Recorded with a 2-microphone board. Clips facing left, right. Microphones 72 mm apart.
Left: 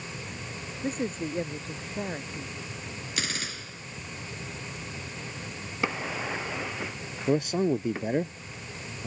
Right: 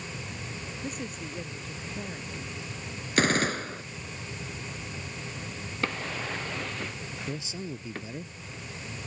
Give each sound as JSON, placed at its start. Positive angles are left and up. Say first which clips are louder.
{"t": 0.8, "sound": "a man speaking", "louder": "left 8 dB", "side_deg": 40}
{"t": 3.2, "sound": "a gunshot", "louder": "right 12 dB", "side_deg": -50}
{"t": 5.8, "sound": "a drawer", "louder": "left 2 dB", "side_deg": 10}
{"t": 7.3, "sound": "a man speaking", "louder": "left 15 dB", "side_deg": 60}